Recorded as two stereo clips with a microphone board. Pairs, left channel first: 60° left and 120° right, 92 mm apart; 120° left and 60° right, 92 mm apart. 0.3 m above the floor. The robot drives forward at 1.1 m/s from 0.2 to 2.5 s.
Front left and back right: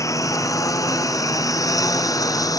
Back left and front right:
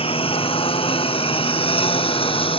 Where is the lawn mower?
115° left; by 2.6 s 110° left.